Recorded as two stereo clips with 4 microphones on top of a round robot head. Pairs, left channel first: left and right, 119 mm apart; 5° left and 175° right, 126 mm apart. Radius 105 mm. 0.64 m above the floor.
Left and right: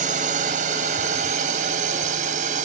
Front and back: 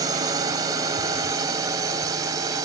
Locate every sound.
0.0 s a drone: 110° right